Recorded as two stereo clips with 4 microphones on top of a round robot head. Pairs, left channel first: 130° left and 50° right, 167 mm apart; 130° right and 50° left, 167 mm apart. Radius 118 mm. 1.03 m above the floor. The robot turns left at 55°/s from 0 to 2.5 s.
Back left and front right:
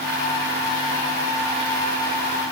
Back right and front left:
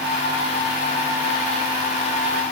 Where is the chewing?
I don't hear chewing.